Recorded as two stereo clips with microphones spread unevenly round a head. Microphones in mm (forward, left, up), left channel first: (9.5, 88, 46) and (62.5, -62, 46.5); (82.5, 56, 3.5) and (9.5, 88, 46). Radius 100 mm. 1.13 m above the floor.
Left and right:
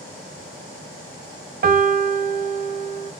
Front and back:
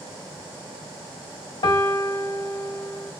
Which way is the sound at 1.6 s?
40° right.